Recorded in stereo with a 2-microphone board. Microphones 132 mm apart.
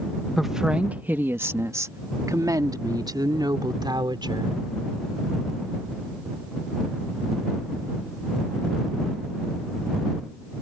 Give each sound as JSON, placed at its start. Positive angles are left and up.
{"t": 0.4, "sound": "a woman speaking", "side_deg": 0}